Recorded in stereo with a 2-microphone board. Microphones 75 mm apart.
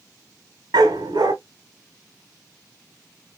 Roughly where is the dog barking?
Right.